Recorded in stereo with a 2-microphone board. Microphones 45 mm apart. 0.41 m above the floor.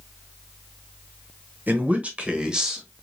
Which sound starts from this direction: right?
A man speaking, at 1.7 s.